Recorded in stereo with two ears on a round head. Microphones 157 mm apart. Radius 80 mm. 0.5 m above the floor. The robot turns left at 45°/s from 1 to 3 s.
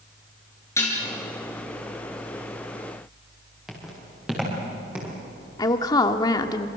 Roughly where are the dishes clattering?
Centre.